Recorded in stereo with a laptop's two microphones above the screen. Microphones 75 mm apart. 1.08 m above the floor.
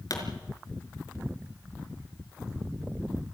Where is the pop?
55° left (ahead or behind), 4.5 m.